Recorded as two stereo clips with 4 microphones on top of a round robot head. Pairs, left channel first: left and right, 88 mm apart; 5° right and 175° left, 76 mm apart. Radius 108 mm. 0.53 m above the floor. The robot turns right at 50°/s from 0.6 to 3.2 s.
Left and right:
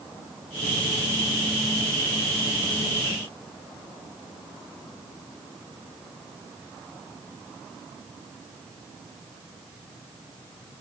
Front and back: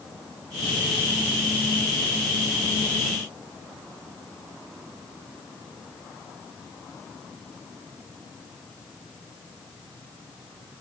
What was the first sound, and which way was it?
Only background noise.